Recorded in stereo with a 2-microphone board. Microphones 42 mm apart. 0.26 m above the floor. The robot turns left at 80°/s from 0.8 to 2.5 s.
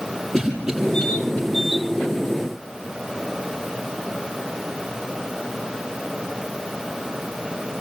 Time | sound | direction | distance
0.3 | a cough | 10° right (ahead or behind) | 8 m